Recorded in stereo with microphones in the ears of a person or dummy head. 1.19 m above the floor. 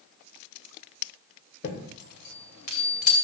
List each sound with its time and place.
1.6 s a chime: 55° left (ahead or behind), 2.5 m